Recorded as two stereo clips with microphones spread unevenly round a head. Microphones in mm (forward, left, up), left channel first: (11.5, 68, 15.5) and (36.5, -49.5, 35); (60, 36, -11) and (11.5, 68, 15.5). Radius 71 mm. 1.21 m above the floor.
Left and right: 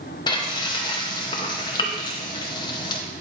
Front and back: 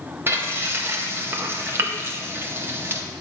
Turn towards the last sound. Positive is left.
turn(degrees=165)